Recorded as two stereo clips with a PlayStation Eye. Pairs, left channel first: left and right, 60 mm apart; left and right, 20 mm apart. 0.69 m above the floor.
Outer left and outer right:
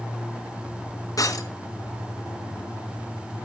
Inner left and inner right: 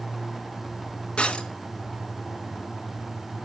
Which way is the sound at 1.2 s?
70° left (ahead or behind).